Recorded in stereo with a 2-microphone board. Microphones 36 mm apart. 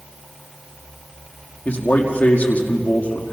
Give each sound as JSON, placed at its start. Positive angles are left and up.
{"t": 1.6, "sound": "a man speaking", "side_deg": 50, "distance_m": 5.0}